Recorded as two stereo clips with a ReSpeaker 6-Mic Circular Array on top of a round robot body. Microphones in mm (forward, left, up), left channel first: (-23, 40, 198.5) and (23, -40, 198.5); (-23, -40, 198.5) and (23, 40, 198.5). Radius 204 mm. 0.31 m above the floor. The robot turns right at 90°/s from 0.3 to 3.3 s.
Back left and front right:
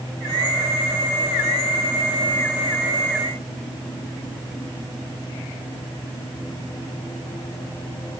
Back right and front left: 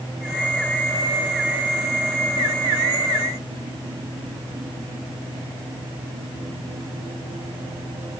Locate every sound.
Only background noise.